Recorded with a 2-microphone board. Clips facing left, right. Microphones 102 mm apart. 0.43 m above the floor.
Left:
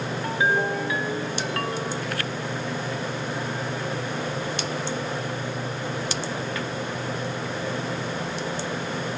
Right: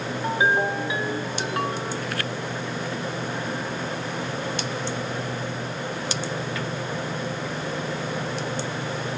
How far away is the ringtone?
About 2 m.